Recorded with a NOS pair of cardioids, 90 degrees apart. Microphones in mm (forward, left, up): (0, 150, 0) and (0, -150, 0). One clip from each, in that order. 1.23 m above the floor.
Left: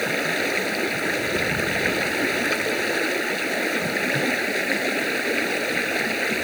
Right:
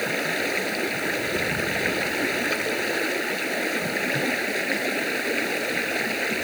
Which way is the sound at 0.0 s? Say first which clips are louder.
Left 2 dB; 15° left.